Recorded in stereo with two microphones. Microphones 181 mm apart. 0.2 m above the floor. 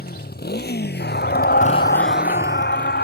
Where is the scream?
65° left (ahead or behind).